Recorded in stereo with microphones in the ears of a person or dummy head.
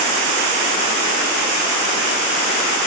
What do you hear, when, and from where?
Only background noise.